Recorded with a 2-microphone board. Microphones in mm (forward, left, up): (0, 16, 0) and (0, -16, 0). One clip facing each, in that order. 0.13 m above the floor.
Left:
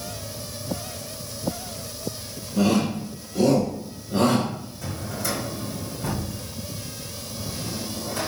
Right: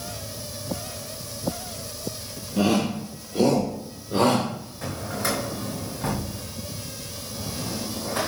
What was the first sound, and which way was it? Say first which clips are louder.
A shout: left 1 dB; 25° right (ahead or behind).